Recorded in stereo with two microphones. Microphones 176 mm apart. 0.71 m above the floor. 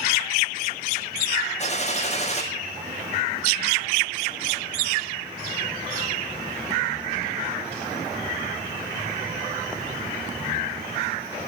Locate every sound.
1.6 s a gunshot: 40° left (ahead or behind), 5 m